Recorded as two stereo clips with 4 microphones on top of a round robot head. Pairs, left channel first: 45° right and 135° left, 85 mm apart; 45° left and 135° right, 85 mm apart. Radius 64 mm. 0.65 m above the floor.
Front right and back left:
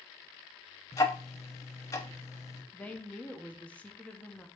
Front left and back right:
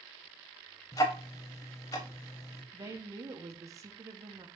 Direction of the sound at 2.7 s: 115° right.